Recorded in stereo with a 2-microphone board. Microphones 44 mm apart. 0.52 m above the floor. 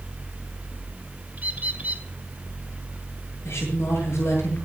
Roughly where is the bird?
Right.